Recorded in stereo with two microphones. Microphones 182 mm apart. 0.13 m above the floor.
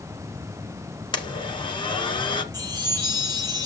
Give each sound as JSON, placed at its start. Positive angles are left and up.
{"t": 1.1, "sound": "a blender", "side_deg": 25, "distance_m": 1.4}
{"t": 2.5, "sound": "a chime", "side_deg": -20, "distance_m": 5.0}